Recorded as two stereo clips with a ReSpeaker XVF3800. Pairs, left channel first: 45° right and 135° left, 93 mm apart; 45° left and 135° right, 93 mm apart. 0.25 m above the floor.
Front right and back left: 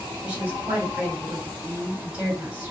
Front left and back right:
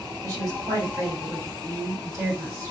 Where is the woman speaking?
160° right, 1.9 m.